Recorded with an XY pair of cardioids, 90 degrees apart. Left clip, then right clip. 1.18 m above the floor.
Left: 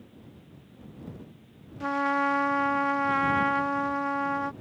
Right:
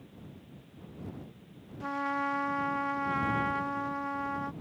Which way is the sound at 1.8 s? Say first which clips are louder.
Left 6 dB; 50° left.